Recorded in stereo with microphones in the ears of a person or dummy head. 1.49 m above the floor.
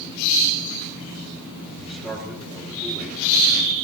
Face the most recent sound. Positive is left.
turn(degrees=-5)  # may be behind; listen again after turning